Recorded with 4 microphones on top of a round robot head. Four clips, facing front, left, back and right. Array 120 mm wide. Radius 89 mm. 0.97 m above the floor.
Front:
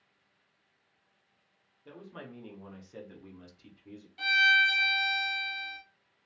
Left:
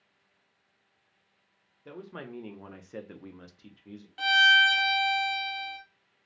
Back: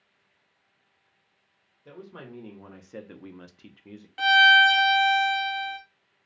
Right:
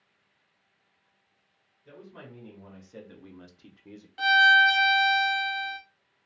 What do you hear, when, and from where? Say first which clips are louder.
1.9 s a man speaking: left 5 dB, back 3 dB; 105° left, 1.0 m; by 4.1 s 145° right, 0.6 m
4.2 s a violin: right 3 dB, back 9 dB; 170° right, 0.6 m